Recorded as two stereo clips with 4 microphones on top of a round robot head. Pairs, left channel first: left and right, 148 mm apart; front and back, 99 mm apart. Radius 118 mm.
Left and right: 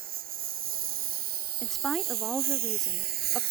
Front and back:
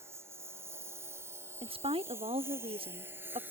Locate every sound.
0.0 s a lawn mower: 110° right; by 3.5 s 105° right
1.6 s a woman speaking: 175° left